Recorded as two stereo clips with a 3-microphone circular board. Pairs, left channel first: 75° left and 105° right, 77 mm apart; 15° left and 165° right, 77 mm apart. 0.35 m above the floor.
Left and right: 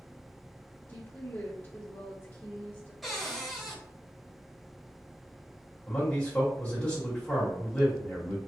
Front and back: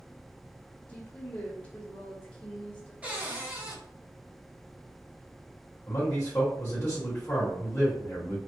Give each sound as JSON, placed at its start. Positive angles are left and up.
{"t": 0.9, "sound": "a woman speaking", "azimuth_deg": 60, "distance_m": 1.3}
{"t": 3.0, "sound": "a cupboard door", "azimuth_deg": 170, "distance_m": 1.1}
{"t": 5.9, "sound": "a man speaking", "azimuth_deg": 20, "distance_m": 1.4}